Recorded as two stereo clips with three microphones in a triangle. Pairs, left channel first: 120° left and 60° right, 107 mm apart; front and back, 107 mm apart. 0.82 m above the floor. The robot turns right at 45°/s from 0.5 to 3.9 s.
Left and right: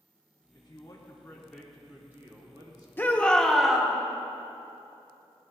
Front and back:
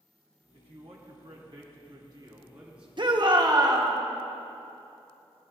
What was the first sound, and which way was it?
A man speaking, 160° left.